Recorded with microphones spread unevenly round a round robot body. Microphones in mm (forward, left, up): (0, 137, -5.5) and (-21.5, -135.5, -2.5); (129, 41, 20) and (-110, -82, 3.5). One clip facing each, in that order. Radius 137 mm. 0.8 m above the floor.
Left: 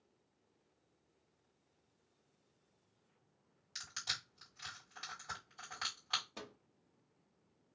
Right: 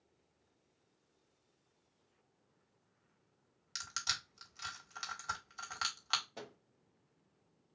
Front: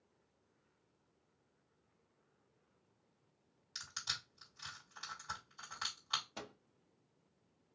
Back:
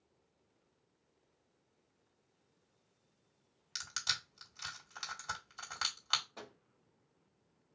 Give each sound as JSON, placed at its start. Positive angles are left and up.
{"t": 3.8, "sound": "crushing", "azimuth_deg": -145, "distance_m": 1.8}
{"t": 6.4, "sound": "a microwave", "azimuth_deg": 25, "distance_m": 0.8}